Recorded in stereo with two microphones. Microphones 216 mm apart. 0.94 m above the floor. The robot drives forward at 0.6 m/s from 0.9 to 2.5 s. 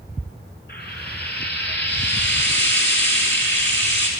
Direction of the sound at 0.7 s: 50° left (ahead or behind).